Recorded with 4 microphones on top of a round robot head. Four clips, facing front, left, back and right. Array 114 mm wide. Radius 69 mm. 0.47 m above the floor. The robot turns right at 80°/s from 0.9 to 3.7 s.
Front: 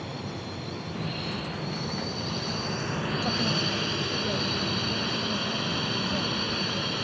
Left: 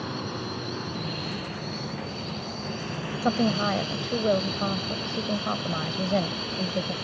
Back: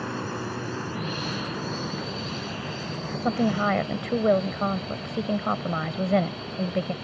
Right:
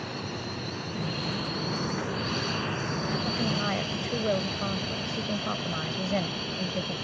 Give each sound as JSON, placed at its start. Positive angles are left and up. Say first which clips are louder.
{"t": 0.0, "sound": "a drone", "louder": "left 3 dB, back 5 dB", "azimuth_deg": 150}
{"t": 3.2, "sound": "a woman speaking", "louder": "left 5 dB, back 11 dB", "azimuth_deg": 120}